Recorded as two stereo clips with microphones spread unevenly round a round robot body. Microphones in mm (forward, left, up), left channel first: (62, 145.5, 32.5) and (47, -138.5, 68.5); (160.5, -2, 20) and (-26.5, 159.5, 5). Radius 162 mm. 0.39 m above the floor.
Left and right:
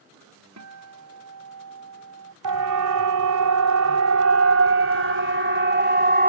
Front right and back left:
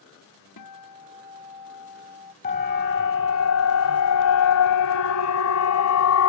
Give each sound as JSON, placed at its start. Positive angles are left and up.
{"t": 0.6, "sound": "a guitar", "azimuth_deg": -60}
{"t": 2.4, "sound": "a siren", "azimuth_deg": -100}